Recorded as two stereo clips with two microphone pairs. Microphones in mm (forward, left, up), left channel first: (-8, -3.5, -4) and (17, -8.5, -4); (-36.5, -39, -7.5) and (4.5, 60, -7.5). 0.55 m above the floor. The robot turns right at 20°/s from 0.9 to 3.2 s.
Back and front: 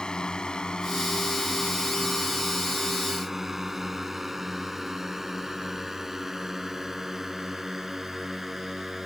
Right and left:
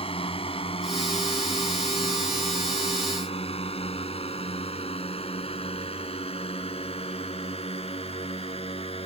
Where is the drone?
140° right; by 9.1 s 90° right.